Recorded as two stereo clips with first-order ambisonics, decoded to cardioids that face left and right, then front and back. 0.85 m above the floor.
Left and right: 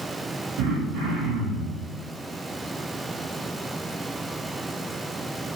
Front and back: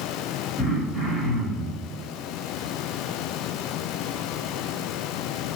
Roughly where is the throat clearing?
Right.